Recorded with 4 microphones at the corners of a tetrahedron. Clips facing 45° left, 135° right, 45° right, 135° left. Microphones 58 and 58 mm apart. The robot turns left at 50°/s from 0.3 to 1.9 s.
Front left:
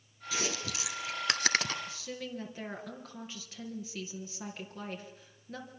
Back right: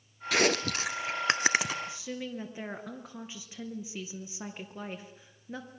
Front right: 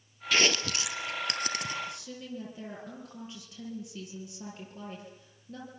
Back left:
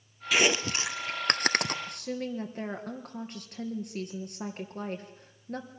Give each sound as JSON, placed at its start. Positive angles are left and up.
{"t": 0.3, "sound": "chewing", "azimuth_deg": -145, "distance_m": 1.1}
{"t": 1.9, "sound": "a woman speaking", "azimuth_deg": 160, "distance_m": 3.5}